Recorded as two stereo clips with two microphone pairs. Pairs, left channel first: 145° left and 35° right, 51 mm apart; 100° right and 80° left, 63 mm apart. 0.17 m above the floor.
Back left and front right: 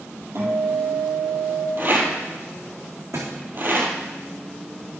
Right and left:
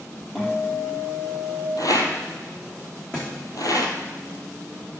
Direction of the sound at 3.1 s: 25° right.